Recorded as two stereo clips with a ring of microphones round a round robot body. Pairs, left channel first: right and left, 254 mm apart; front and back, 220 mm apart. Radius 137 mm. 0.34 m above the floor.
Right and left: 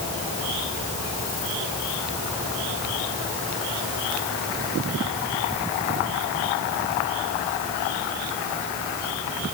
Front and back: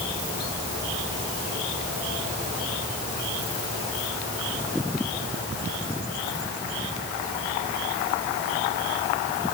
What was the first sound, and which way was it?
Only background noise.